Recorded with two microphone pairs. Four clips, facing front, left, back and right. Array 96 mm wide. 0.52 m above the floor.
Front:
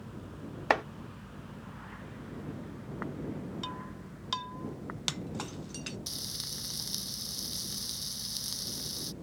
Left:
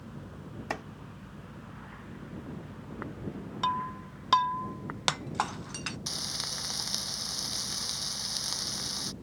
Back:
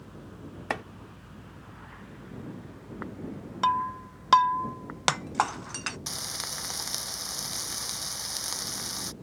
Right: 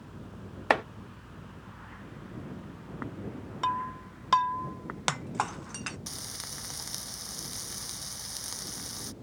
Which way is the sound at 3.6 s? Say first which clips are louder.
Even, back 15 dB; 175° left.